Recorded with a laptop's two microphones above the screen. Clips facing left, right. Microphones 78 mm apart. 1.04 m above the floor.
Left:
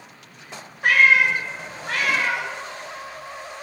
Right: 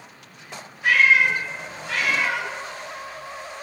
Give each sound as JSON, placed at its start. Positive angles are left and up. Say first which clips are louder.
{"t": 0.8, "sound": "a cat meowing", "louder": "left 1 dB", "side_deg": 50, "distance_m": 0.5}